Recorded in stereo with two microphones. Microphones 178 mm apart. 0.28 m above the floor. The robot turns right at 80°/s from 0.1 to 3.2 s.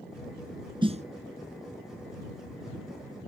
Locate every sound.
0.8 s a snare drum: 25° right (ahead or behind); by 1.0 s 45° right (ahead or behind)